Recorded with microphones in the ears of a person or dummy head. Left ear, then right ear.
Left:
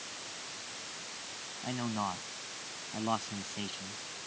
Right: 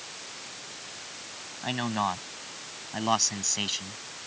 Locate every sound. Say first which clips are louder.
1.6 s a man speaking: right 7 dB; 80° right; by 4.0 s 65° right (ahead or behind)